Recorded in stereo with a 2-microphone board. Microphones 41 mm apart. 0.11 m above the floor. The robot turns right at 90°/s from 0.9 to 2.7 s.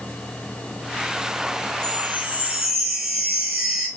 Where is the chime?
75° right, 1.8 m; by 3.9 s straight ahead, 1.8 m.